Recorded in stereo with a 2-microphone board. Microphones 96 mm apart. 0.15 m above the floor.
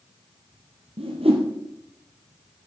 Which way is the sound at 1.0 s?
75° right (ahead or behind).